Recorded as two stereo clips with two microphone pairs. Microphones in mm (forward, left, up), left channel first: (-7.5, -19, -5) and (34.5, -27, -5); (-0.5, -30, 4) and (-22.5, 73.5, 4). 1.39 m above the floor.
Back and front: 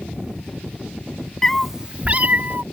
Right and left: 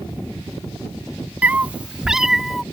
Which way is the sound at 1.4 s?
130° left.